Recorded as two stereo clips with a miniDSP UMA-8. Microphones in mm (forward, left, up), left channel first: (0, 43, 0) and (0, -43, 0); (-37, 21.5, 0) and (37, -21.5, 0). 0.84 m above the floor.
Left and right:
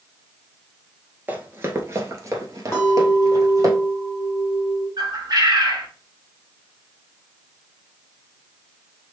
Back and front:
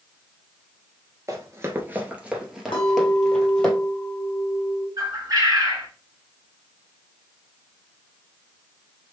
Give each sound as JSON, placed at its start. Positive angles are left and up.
{"t": 1.3, "sound": "running footsteps", "azimuth_deg": -40, "distance_m": 1.0}
{"t": 2.7, "sound": "a clink", "azimuth_deg": 145, "distance_m": 1.5}
{"t": 5.0, "sound": "a bird", "azimuth_deg": -65, "distance_m": 1.0}